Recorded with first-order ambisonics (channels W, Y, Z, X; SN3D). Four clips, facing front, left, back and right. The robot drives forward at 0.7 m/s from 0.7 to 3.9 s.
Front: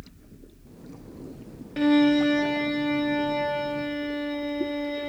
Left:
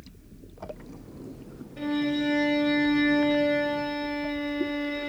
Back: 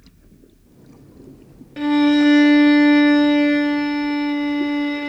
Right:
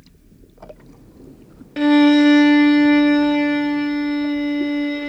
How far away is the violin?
About 0.5 m.